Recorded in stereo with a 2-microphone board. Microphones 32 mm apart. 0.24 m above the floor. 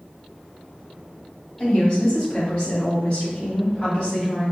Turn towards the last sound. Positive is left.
turn(degrees=30)  # may be behind; listen again after turning